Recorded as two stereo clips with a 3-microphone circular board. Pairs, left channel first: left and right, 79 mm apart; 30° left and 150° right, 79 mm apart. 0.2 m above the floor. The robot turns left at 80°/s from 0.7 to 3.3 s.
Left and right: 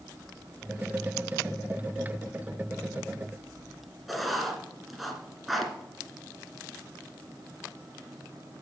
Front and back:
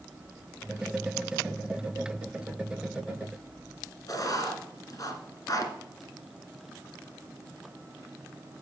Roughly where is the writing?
Ahead.